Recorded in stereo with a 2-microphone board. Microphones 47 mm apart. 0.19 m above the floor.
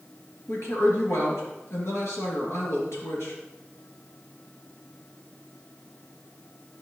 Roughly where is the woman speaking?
Left.